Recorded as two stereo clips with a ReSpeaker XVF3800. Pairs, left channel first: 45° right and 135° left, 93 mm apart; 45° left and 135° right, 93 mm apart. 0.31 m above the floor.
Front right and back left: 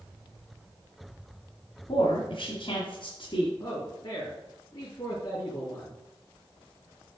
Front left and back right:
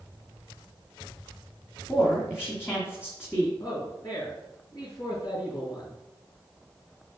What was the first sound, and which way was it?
A woman speaking, 20° right.